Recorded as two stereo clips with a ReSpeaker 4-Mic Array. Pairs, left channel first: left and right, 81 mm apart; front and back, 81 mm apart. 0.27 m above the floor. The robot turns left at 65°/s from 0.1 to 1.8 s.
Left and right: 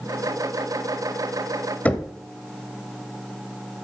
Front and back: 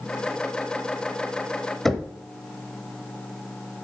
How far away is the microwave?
No microwave in this recording.